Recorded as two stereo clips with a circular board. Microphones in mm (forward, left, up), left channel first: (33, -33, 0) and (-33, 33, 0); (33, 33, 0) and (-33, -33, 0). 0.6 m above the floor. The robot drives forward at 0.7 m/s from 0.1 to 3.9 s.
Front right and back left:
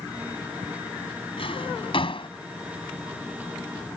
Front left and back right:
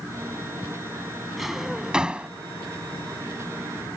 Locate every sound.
1.4 s a drawer: 45° right; by 2.3 s 55° right